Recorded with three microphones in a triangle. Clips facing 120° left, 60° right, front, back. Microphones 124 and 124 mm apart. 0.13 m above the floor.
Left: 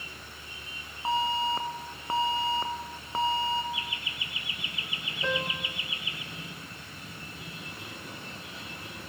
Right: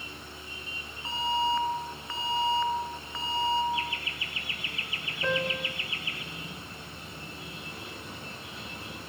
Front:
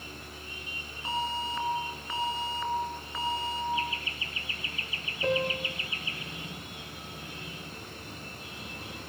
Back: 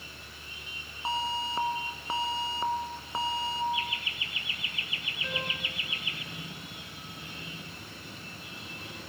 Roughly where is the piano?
Ahead.